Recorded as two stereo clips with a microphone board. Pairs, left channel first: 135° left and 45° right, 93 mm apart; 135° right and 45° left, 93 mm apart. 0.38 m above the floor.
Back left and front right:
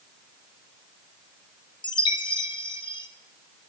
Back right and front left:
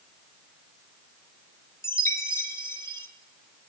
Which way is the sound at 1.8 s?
165° left.